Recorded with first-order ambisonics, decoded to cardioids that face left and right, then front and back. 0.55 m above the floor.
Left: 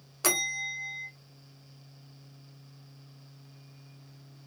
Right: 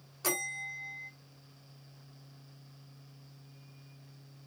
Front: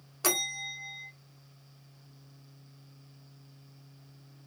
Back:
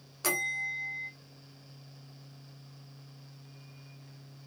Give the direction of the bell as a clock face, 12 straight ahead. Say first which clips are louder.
Left 6 dB, even; 10 o'clock.